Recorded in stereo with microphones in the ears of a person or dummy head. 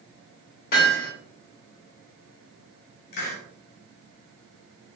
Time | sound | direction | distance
0.7 | hammering | 55° left (ahead or behind) | 2.5 m
3.1 | a hiss | 60° left (ahead or behind) | 1.2 m